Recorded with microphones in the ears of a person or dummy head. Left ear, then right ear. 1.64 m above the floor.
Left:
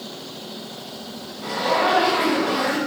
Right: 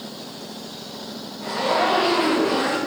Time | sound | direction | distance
1.4 | a zipper | 10° right (ahead or behind) | 1.5 m